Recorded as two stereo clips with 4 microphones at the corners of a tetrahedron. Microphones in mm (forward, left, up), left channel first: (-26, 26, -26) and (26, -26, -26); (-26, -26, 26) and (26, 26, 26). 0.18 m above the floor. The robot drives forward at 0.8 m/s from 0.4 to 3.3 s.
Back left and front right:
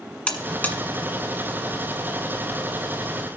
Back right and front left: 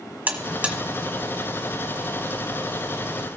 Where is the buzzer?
80° left, 1.4 m; by 0.8 s 105° left, 1.4 m.